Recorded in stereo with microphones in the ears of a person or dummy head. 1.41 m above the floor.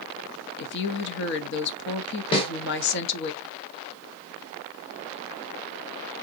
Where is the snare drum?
30° left (ahead or behind), 1.4 m.